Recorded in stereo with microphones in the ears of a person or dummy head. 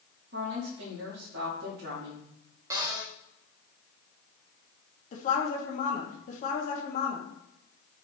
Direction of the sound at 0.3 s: 55° right (ahead or behind).